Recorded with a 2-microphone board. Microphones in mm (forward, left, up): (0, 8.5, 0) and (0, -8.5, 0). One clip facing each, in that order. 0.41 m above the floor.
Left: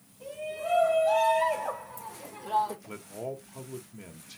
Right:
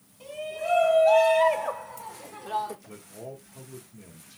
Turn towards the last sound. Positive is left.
turn(degrees=35)  # may be behind; listen again after turning